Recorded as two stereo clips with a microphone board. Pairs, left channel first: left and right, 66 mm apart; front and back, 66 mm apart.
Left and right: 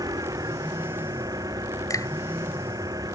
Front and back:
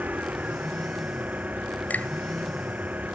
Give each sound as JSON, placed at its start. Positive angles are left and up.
{"t": 0.0, "sound": "an engine running", "azimuth_deg": -115}
{"t": 1.9, "sound": "a finger snap", "azimuth_deg": 65}